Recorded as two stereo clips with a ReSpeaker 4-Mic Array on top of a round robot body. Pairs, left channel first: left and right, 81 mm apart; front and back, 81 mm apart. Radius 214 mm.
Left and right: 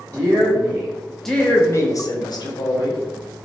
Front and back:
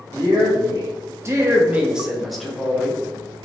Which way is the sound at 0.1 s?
135° right.